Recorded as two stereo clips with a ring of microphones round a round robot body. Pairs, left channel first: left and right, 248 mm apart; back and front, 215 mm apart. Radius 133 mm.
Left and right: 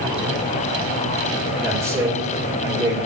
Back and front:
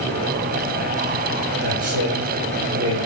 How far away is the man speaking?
About 2.5 m.